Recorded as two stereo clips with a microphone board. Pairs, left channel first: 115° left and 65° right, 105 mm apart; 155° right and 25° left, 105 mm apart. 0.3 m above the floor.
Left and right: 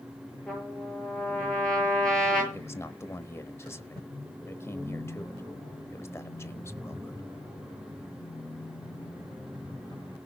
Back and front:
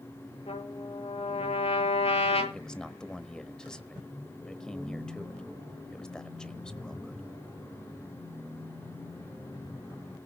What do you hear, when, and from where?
0.5 s a trumpet: 165° right, 7 m
2.5 s a man speaking: 130° left, 1.0 m